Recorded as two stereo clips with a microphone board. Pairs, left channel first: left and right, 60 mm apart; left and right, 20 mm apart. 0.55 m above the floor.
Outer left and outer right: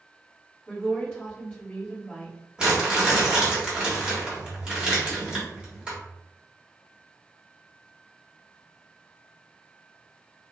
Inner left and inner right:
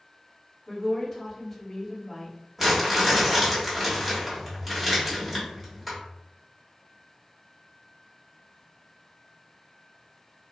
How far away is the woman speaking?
About 1.3 m.